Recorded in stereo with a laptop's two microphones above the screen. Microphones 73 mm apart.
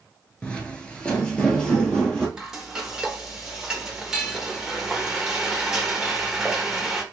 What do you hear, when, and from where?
0.4 s footsteps: 15° left (ahead or behind), 1.0 m; by 2.3 s 10° left (ahead or behind), 1.7 m
2.4 s frying: 10° right (ahead or behind), 1.0 m